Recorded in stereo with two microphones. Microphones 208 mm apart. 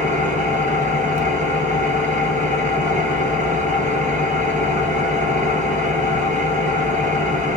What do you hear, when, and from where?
0.0 s an engine running: 40° right (ahead or behind), 0.8 m